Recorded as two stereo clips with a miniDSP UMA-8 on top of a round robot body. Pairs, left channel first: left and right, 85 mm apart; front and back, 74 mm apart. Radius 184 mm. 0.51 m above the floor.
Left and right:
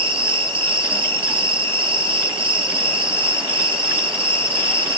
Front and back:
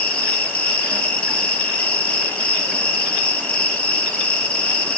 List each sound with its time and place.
0.0 s an insect: 75° right, 2.5 m